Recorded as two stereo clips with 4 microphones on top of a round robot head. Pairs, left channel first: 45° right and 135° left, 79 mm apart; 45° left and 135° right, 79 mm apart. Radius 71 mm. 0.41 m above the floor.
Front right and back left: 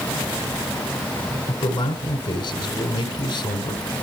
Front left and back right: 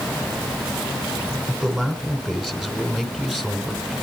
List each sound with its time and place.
1.5 s a man speaking: 45° right, 2.5 m